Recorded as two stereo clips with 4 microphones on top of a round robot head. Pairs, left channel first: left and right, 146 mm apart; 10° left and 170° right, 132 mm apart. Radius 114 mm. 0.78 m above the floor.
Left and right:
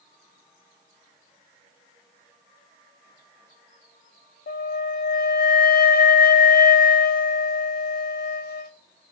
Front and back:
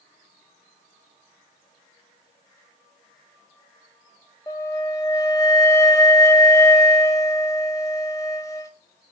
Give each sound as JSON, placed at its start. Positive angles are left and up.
{"t": 4.5, "sound": "a flute", "azimuth_deg": 80, "distance_m": 0.6}